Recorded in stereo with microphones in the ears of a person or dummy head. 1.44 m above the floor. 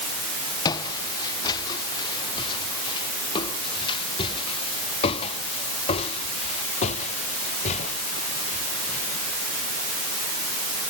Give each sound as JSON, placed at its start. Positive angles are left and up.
{"t": 0.7, "sound": "footsteps", "side_deg": 20}